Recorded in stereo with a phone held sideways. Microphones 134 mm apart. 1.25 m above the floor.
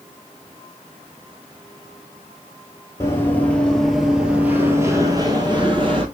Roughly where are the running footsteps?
Left.